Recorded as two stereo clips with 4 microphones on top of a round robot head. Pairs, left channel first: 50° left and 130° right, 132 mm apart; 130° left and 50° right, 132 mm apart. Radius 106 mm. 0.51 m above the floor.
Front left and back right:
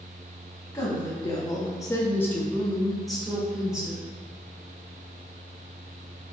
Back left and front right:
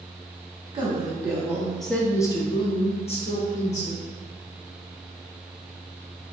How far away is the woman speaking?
About 1.0 m.